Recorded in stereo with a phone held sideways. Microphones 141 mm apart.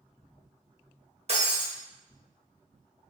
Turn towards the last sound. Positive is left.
turn(degrees=-50)  # may be behind; listen again after turning